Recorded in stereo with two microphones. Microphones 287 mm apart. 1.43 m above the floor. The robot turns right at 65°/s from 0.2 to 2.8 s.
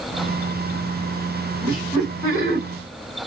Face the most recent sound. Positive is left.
turn(degrees=40)